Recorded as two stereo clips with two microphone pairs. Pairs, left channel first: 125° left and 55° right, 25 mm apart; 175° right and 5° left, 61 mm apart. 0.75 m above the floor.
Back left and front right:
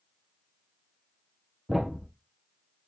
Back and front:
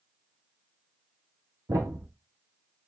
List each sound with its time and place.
1.7 s a thud: 20° left, 2.5 m